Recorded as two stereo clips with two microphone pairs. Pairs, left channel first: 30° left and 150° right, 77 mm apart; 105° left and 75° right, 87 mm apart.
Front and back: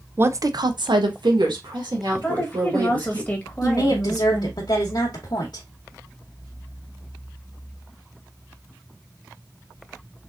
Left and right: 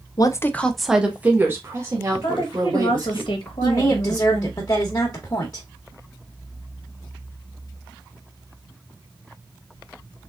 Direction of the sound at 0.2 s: 145° left.